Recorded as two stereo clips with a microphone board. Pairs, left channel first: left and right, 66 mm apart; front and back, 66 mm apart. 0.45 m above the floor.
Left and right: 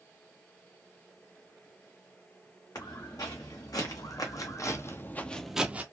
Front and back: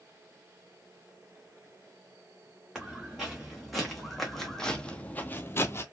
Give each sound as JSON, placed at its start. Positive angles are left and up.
{"t": 2.8, "sound": "footsteps", "azimuth_deg": 95, "distance_m": 1.8}